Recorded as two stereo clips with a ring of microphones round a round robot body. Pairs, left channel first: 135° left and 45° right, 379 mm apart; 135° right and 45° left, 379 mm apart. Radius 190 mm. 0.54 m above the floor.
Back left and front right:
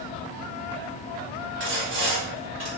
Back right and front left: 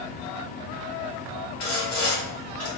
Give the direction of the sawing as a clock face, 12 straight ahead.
3 o'clock.